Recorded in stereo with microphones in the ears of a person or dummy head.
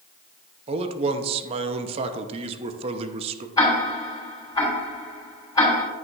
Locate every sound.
0.7 s a man speaking: 30° right (ahead or behind), 0.7 m
3.6 s ticking: 20° left (ahead or behind), 3.5 m